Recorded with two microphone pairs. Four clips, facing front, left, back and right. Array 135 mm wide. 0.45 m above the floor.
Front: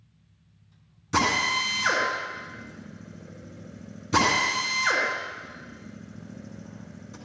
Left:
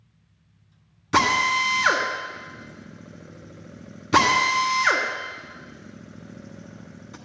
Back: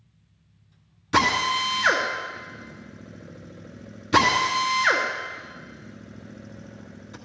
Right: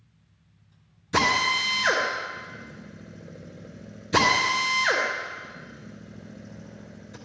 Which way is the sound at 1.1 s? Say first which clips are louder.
Left 3 dB, back 3 dB; 110° left.